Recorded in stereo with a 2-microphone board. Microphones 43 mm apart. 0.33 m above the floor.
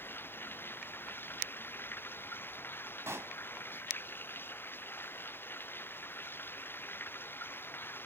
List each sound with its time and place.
0.0 s running water: 45° left (ahead or behind)
3.1 s a pop: 75° right (ahead or behind)